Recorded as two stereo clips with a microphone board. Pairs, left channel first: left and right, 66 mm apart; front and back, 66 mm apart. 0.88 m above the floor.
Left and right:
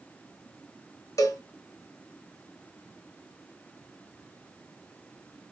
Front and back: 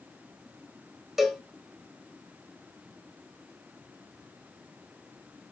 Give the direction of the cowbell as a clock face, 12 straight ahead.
9 o'clock.